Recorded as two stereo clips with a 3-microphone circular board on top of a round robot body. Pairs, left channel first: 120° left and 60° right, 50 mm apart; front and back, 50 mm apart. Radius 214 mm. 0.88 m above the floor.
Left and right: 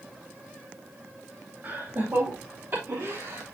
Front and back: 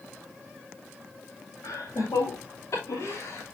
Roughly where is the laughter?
Ahead.